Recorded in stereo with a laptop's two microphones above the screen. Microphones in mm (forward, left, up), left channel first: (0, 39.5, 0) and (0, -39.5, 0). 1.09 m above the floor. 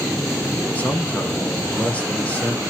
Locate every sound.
0.8 s a man speaking: 20° left (ahead or behind), 0.9 m